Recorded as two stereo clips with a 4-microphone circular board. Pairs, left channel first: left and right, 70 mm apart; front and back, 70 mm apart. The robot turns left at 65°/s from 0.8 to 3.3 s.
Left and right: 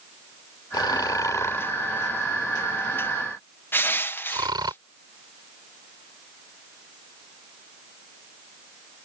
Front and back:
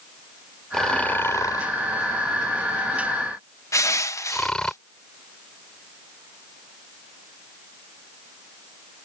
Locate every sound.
0.7 s snoring: 85° left; by 4.7 s 80° right
3.7 s crushing: 35° left